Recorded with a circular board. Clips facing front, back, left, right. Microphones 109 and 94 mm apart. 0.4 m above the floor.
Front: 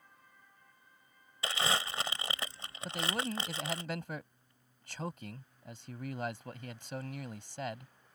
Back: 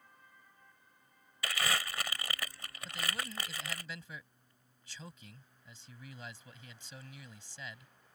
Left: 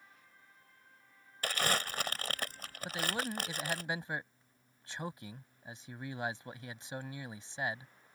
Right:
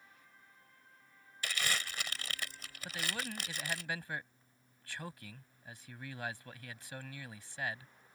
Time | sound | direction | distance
1.4 | crumpling | 60° left | ?
2.9 | a man speaking | 25° left | ?